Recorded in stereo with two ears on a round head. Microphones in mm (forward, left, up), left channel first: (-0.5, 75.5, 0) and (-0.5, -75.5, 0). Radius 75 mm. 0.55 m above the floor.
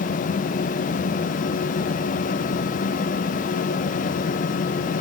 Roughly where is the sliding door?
No sliding door in this recording.